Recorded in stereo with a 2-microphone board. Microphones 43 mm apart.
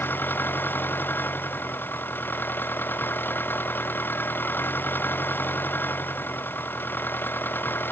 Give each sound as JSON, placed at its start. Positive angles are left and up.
{"t": 0.0, "sound": "an engine running", "side_deg": 50}